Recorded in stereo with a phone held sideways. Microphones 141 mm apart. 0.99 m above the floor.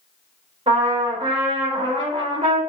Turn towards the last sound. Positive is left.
turn(degrees=-45)  # may be behind; listen again after turning